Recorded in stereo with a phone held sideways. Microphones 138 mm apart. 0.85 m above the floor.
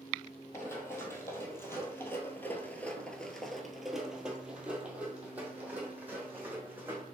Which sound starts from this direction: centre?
Running footsteps, at 0.5 s.